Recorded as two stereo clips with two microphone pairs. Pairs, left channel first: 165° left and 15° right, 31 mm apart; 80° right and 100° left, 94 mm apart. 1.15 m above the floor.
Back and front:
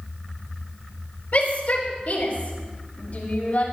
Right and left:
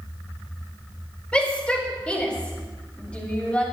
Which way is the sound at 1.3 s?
155° right.